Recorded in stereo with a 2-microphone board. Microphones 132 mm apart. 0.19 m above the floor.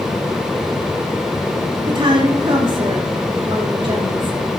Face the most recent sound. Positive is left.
turn(degrees=-40)  # may be behind; listen again after turning